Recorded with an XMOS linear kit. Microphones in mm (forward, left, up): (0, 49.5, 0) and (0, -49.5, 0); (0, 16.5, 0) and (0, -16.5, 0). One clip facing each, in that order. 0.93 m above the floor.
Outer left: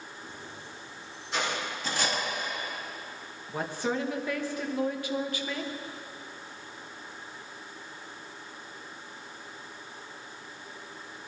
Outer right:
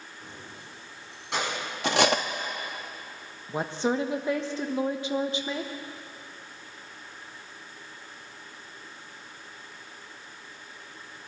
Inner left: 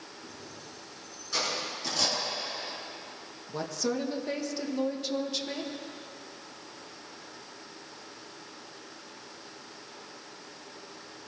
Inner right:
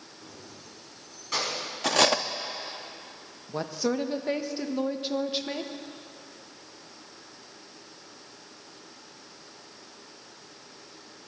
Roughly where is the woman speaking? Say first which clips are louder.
Outer right 4 dB, inner right 3 dB; right.